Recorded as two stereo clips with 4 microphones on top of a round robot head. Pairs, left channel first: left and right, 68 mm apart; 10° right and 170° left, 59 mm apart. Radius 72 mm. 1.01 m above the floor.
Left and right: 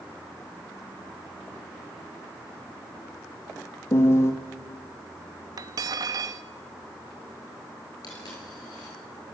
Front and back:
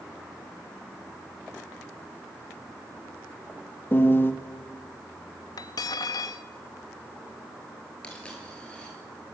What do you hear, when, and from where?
3.9 s a piano: 40° left, 1.8 m
5.6 s cutlery clinking: 45° right, 0.6 m
8.0 s a dropped coin: 60° left, 9 m